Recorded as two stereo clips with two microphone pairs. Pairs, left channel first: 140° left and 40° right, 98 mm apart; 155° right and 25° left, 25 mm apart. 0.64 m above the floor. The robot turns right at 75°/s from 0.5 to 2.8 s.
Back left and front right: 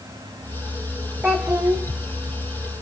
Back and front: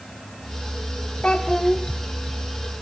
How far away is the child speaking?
About 0.8 m.